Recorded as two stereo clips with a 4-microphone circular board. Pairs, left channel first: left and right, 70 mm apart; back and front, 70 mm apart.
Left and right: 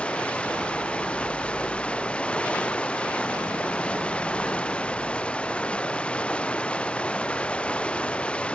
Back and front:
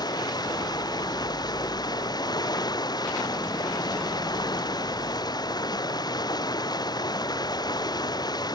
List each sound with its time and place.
0.0 s running water: 165° left